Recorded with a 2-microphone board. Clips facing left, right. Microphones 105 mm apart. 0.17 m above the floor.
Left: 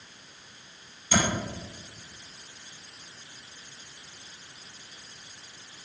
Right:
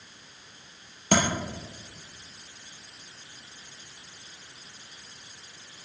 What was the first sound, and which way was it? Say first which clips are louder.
Tapping: right 3 dB; 70° right (ahead or behind).